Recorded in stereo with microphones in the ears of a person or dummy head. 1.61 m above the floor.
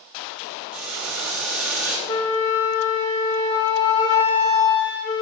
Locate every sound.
0.7 s boiling: 5° right (ahead or behind), 2.5 m
2.1 s a flute: 25° left (ahead or behind), 1.9 m